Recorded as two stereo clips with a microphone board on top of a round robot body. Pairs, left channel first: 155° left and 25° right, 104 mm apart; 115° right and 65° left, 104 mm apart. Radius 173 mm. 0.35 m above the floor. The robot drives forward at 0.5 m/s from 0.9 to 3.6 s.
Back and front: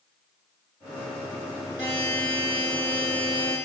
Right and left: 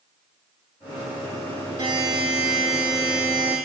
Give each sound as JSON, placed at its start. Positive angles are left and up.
{"t": 1.8, "sound": "a buzzer", "azimuth_deg": 115, "distance_m": 3.5}